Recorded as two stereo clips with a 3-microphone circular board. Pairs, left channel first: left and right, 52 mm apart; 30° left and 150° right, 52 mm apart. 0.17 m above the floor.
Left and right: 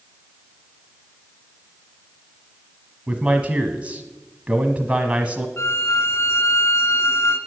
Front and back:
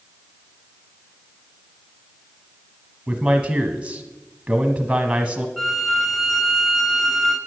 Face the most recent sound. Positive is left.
turn(degrees=115)